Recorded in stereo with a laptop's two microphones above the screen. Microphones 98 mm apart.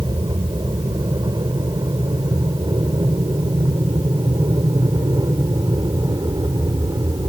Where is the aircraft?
50° right (ahead or behind); by 7.3 s 45° right (ahead or behind).